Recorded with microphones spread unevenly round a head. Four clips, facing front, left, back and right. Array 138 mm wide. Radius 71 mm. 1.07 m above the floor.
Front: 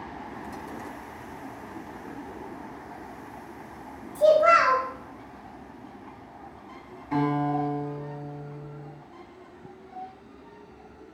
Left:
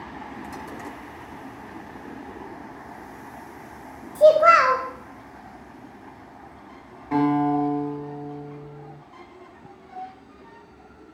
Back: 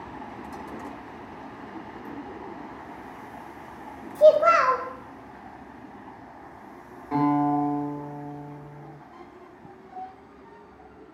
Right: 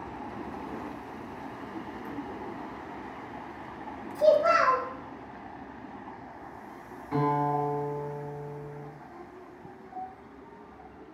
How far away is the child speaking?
About 0.5 m.